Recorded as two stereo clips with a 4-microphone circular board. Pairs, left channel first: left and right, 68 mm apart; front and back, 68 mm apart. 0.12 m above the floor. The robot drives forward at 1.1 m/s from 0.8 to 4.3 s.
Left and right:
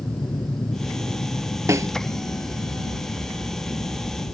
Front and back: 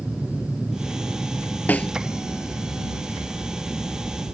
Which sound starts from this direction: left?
An aircraft, at 0.0 s.